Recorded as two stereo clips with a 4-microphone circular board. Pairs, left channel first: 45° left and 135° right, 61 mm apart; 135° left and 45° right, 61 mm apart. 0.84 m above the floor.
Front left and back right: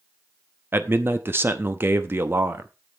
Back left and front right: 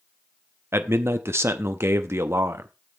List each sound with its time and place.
0.7 s a man speaking: 90° right, 0.7 m